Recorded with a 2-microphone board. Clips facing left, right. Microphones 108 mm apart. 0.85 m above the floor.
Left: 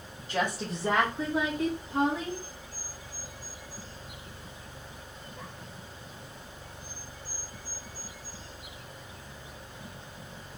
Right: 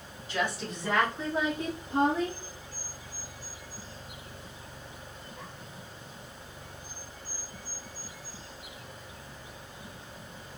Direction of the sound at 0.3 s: 50° left (ahead or behind).